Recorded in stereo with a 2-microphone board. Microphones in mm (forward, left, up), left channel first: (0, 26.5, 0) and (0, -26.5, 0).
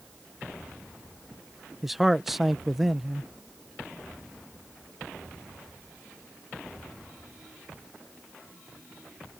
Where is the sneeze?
I don't hear a sneeze.